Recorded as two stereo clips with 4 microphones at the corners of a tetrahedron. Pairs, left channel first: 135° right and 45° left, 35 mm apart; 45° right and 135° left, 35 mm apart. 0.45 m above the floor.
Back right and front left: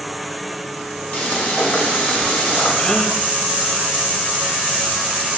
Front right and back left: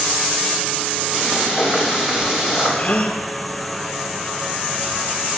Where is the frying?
160° right, 4.5 m.